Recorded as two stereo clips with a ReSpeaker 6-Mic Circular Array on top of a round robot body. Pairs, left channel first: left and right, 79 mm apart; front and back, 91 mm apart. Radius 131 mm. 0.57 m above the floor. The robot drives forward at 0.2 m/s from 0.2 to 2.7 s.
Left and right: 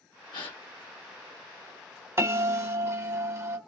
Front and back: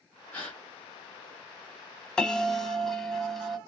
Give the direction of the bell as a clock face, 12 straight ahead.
3 o'clock.